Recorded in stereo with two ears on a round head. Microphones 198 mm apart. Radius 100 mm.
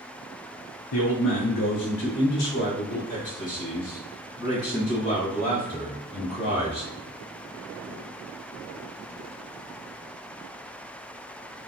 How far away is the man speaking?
About 0.6 m.